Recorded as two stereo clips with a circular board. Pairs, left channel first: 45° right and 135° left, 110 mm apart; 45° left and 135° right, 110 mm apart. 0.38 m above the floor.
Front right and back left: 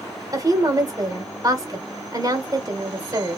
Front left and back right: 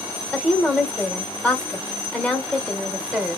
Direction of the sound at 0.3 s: 115° left.